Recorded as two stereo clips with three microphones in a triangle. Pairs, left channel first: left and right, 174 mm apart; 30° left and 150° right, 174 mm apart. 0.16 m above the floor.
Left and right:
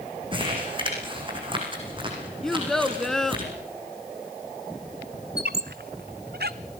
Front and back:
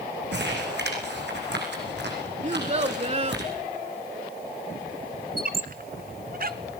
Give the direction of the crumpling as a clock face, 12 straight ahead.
5 o'clock.